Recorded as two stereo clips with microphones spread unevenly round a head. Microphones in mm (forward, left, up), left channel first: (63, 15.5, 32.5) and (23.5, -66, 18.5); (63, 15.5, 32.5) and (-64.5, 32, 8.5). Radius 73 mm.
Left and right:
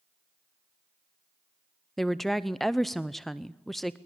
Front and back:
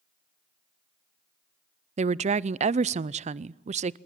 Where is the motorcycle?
I don't hear a motorcycle.